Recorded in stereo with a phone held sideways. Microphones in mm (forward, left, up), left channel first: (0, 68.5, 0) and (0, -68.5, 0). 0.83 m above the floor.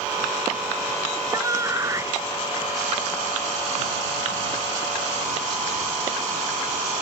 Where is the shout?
25° right (ahead or behind); by 2.2 s 20° right (ahead or behind).